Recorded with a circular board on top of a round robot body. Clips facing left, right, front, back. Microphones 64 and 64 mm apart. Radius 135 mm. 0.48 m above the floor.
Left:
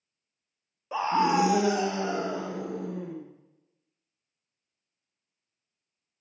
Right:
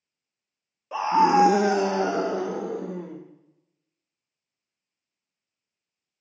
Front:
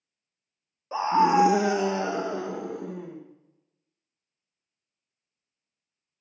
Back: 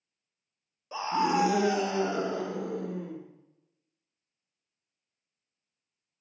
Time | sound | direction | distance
0.9 | a scream | 5° left | 0.8 m